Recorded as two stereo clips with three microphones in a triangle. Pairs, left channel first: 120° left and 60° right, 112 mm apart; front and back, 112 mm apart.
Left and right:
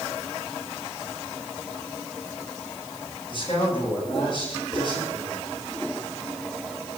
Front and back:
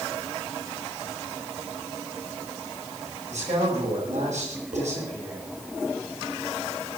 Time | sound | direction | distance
3.3 | a man speaking | 170° left | 8 m
4.7 | dishes clattering | 165° right | 8.5 m